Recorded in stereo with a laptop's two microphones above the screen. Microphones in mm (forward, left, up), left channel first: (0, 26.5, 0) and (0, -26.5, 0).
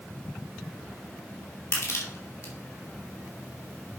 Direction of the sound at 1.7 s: 60° left (ahead or behind).